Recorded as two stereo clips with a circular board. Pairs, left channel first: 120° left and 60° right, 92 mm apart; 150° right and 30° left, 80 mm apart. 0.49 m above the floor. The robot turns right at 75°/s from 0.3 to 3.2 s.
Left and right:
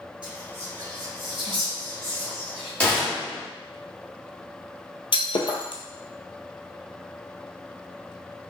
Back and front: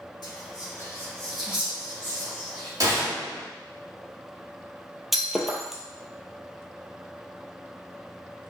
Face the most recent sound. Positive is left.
turn(degrees=120)